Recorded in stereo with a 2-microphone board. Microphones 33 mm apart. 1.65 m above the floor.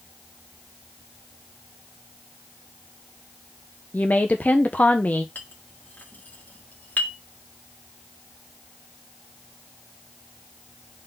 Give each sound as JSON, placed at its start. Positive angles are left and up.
{"t": 3.9, "sound": "a woman speaking", "side_deg": 50, "distance_m": 0.7}
{"t": 5.3, "sound": "a clink", "side_deg": 50, "distance_m": 1.7}